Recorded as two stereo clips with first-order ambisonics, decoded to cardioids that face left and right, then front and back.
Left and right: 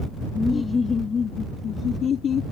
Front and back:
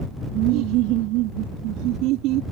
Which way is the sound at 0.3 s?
165° left.